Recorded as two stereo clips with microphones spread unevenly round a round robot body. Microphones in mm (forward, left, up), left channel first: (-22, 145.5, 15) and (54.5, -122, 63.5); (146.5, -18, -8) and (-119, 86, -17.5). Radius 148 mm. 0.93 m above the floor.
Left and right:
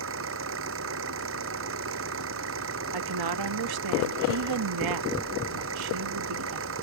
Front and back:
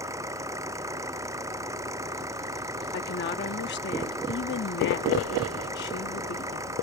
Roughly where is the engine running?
Behind right.